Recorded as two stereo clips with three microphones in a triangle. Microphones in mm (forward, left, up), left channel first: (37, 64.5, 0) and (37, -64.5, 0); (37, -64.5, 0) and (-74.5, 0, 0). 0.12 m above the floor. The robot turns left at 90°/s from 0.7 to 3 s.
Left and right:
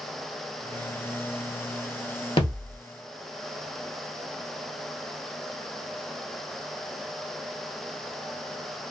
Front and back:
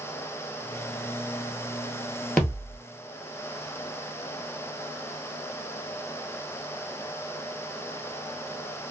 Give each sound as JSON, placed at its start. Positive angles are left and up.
{"t": 2.4, "sound": "a thud", "azimuth_deg": 55, "distance_m": 1.1}